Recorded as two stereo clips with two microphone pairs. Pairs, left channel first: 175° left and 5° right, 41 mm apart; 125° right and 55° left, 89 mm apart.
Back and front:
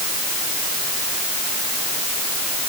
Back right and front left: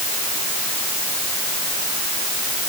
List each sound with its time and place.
Only background noise.